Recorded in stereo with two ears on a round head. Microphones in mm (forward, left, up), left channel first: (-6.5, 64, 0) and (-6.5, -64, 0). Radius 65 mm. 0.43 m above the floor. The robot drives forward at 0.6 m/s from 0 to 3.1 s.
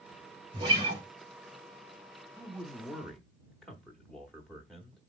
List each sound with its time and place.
0.5 s a guitar: 30° right (ahead or behind), 1.7 m
2.4 s a man speaking: centre (ahead or behind), 0.8 m